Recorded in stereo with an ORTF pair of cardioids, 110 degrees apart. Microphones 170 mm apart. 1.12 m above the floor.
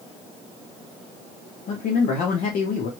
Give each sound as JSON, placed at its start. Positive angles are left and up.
{"t": 1.7, "sound": "a man speaking", "azimuth_deg": 65, "distance_m": 1.3}